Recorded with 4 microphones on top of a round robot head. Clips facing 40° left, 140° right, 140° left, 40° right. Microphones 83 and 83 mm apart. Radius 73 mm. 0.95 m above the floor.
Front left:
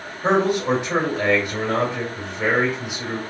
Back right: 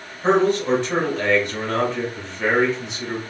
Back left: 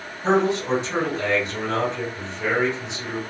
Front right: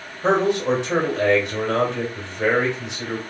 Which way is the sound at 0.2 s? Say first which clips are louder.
Back right 1 dB, front right 1 dB; 35° right.